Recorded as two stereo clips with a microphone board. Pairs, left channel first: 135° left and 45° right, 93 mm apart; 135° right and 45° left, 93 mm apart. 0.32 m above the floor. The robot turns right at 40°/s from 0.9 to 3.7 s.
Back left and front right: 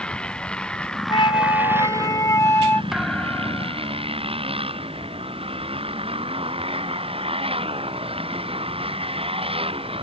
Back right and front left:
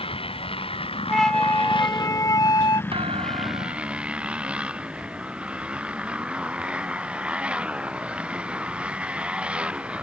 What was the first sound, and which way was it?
A motorcycle, 145° right.